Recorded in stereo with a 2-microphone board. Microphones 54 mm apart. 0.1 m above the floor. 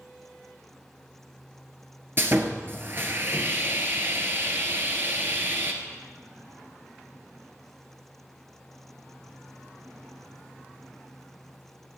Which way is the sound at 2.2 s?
45° right (ahead or behind).